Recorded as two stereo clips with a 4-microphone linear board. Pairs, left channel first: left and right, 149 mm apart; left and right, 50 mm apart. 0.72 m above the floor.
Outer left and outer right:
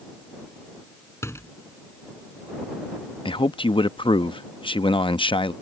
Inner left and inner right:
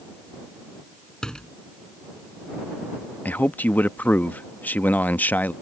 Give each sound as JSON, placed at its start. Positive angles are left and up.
{"t": 1.2, "sound": "a door slam", "side_deg": 15}
{"t": 3.2, "sound": "a man speaking", "side_deg": 35}